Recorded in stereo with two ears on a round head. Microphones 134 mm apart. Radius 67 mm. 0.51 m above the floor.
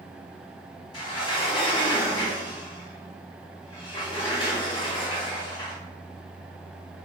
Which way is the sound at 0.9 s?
35° left (ahead or behind).